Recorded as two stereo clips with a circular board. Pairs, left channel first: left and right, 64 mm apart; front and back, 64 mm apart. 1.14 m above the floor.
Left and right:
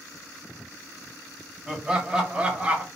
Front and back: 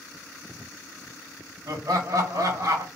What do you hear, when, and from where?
1.7 s laughter: 170° right, 1.6 m; by 2.9 s 155° right, 1.1 m